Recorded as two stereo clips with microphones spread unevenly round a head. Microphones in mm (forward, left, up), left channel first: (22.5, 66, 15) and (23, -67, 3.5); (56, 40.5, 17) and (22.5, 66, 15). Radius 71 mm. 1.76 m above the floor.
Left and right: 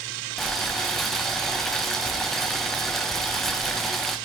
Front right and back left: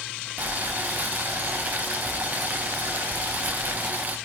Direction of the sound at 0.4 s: 170° left.